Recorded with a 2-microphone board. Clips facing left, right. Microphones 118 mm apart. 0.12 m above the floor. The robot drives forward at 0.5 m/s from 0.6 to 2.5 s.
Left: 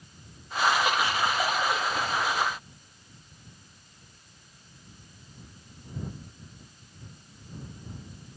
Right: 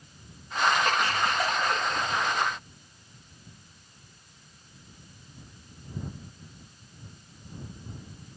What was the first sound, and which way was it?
Laughter, 10° left (ahead or behind).